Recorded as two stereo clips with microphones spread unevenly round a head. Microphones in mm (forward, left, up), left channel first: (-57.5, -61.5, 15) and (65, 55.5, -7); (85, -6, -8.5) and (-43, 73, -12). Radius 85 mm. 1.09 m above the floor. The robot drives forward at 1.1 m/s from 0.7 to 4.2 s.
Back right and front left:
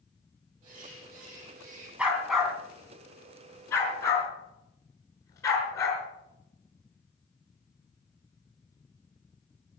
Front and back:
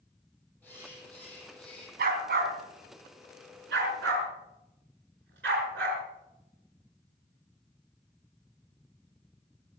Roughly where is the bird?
Ahead left.